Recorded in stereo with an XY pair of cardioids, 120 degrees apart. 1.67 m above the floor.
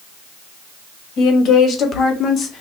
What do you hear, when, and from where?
1.2 s a woman speaking: 60° left, 1.9 m; by 2.6 s 40° left, 1.4 m